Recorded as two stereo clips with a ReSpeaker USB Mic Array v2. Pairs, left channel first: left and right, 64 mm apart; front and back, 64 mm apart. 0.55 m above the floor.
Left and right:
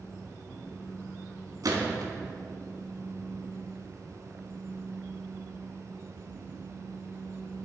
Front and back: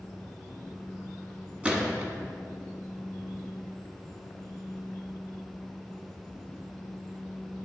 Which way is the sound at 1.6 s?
110° right.